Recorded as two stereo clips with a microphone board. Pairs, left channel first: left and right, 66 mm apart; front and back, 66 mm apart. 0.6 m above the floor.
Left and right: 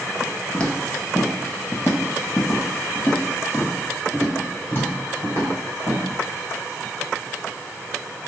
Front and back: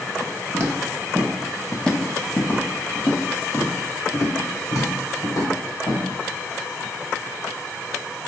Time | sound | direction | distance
0.5 | footsteps | 160° left | 0.8 m